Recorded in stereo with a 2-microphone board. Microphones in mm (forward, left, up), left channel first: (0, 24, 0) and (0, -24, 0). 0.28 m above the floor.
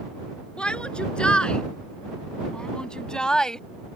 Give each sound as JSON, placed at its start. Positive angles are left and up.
{"t": 0.6, "sound": "a shout", "side_deg": 25}